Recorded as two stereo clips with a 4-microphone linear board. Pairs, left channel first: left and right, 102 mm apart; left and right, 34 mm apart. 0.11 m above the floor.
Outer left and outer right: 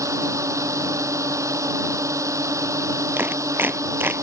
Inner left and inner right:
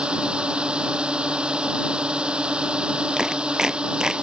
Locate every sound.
0.0 s a drone: 30° right (ahead or behind)
3.2 s a clap: 20° right (ahead or behind)